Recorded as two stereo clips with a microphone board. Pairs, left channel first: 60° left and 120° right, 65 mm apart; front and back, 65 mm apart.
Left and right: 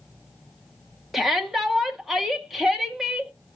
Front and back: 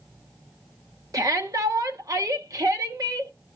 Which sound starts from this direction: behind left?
A shout, at 1.1 s.